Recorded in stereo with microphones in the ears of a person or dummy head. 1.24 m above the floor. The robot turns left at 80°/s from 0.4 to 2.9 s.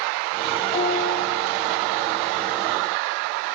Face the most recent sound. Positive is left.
turn(degrees=-30)